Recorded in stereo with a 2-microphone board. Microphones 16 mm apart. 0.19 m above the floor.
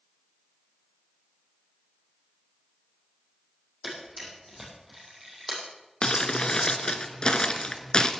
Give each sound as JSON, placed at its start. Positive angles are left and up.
{"t": 3.8, "sound": "a camera shutter", "side_deg": -15, "distance_m": 6.0}
{"t": 6.0, "sound": "crumpling", "side_deg": 65, "distance_m": 1.2}